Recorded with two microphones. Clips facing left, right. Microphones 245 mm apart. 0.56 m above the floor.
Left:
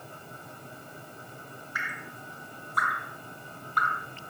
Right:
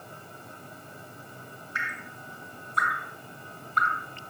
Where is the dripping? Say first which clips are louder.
Even; 25° right (ahead or behind), 1.4 m.